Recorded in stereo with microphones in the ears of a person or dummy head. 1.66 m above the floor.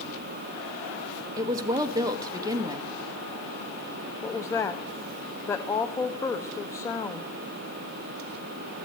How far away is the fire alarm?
No fire alarm in this recording.